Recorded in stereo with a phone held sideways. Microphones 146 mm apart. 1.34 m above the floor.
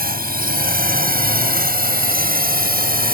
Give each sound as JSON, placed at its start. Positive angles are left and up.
{"t": 0.0, "sound": "a drone", "side_deg": -70}